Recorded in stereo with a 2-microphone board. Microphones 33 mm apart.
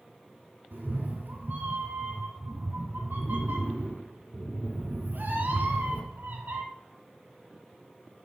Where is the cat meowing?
70° right (ahead or behind), 1.3 m.